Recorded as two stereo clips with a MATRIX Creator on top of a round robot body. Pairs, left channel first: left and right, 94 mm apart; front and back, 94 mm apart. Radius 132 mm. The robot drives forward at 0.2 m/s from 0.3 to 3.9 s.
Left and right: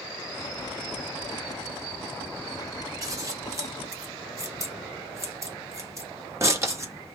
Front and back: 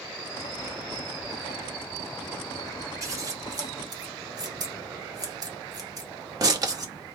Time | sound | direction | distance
3.0 | scissors | 135° right | 1.0 m